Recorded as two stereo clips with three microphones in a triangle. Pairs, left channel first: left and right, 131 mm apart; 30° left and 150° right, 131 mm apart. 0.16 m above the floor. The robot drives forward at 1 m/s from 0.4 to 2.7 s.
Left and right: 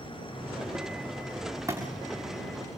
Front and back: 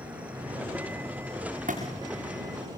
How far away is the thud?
About 7.5 m.